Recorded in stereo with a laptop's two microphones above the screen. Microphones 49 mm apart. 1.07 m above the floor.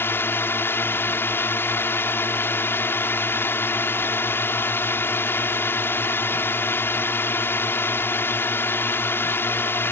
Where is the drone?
55° left (ahead or behind).